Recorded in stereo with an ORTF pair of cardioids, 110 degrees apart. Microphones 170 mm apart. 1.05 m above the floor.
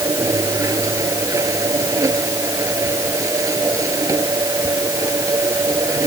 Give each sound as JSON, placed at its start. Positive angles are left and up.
{"t": 0.0, "sound": "a machine running", "azimuth_deg": -20}